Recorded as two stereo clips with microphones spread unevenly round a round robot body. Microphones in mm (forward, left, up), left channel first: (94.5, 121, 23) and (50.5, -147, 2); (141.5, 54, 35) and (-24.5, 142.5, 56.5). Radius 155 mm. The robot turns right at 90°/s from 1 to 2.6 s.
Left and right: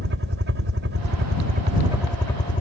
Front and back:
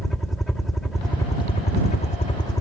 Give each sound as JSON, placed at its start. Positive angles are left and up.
{"t": 0.0, "sound": "a helicopter", "azimuth_deg": -110}